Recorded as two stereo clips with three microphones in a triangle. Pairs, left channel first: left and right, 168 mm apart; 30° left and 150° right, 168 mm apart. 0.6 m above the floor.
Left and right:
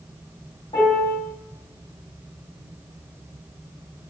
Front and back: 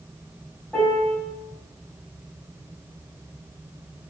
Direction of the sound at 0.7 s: 110° left.